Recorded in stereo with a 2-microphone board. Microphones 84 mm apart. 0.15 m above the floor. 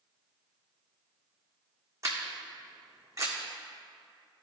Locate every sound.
2.0 s a camera shutter: 35° right (ahead or behind), 1.9 m